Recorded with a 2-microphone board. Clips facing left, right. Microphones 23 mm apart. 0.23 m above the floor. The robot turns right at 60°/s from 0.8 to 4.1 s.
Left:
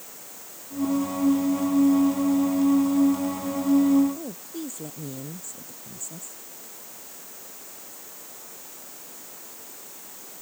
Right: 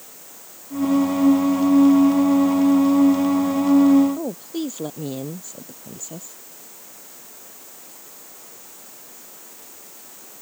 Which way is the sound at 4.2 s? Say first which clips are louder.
Right 8 dB; 45° right (ahead or behind).